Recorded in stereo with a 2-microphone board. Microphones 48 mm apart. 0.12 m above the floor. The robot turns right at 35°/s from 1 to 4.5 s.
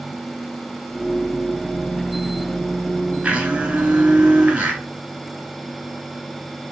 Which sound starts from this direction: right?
A blender, at 3.2 s.